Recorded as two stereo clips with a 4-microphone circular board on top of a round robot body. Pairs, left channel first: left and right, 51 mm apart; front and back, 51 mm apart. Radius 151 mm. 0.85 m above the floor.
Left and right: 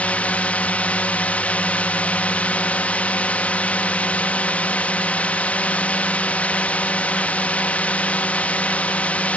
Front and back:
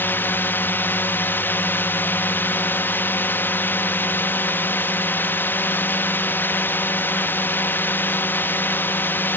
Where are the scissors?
No scissors in this recording.